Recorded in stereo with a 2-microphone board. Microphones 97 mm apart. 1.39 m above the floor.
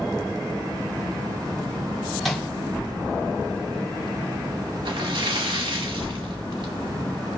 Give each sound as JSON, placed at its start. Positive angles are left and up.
{"t": 2.2, "sound": "a microwave", "side_deg": 0, "distance_m": 2.5}
{"t": 4.8, "sound": "a splash", "side_deg": -55, "distance_m": 1.7}